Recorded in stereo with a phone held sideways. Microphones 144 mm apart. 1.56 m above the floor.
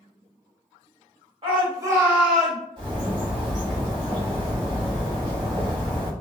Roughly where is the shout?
Right.